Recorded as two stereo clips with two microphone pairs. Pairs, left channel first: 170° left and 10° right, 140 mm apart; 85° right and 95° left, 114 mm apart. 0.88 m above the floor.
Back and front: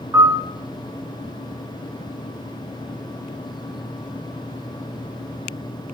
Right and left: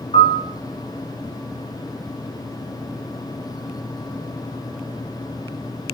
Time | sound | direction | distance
0.1 | a piano | 70° right | 1.7 m